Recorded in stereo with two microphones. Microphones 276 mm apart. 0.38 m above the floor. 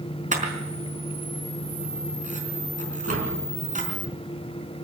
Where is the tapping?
55° right (ahead or behind), 4.5 m.